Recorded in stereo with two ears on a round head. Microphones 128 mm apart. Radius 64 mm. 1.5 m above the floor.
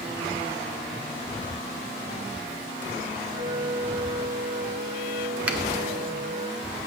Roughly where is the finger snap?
Centre.